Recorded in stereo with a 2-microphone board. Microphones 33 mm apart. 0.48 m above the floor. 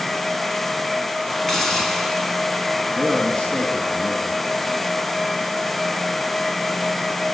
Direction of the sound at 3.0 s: 25° left (ahead or behind).